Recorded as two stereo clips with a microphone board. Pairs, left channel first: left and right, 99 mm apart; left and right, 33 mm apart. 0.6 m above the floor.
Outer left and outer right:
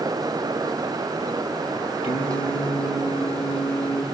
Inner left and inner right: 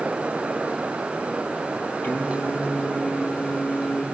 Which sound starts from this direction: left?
Singing, at 2.0 s.